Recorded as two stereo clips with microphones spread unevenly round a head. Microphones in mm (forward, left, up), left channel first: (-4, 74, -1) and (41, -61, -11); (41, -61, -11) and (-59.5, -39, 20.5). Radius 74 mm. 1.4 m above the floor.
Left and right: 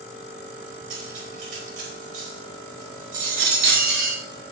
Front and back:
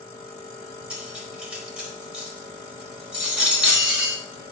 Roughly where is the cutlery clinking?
Behind right.